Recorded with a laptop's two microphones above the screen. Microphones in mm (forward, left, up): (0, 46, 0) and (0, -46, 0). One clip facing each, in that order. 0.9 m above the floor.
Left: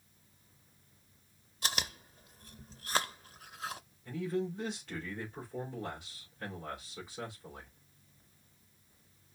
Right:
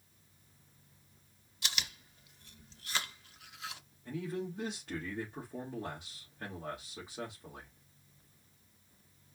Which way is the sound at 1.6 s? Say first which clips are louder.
Left 4 dB; 40° left (ahead or behind).